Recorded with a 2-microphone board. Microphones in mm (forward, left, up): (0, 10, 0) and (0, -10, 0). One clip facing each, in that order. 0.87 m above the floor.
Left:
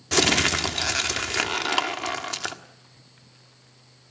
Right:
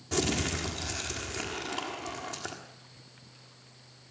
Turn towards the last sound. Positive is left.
turn(degrees=60)  # may be behind; listen again after turning